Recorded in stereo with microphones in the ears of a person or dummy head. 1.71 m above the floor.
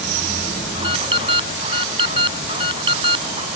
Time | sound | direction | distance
0.8 | an alarm | 30° right (ahead or behind) | ?